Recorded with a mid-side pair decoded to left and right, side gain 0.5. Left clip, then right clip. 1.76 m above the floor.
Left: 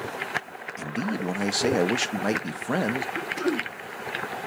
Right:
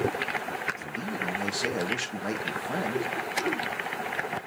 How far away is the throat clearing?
About 2 m.